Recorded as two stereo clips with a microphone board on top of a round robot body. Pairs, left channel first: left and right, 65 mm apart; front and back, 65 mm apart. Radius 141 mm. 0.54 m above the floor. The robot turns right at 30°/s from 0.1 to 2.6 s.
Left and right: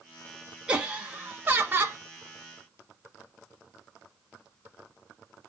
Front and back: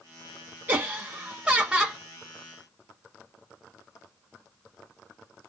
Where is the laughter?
145° right, 1.0 m; by 2.0 s 105° right, 1.0 m.